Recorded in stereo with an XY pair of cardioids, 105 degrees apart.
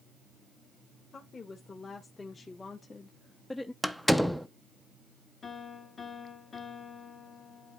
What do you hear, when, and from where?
1.1 s a woman speaking: 35° left, 1.9 m; by 3.7 s 15° left, 0.6 m
3.8 s a door slam: straight ahead, 0.7 m
5.4 s a piano: 40° left, 1.8 m